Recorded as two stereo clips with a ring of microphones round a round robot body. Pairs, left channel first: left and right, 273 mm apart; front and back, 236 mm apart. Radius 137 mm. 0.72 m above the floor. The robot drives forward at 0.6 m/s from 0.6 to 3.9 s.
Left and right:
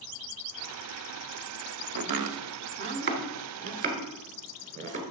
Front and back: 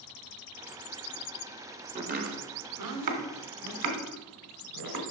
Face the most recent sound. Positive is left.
turn(degrees=-155)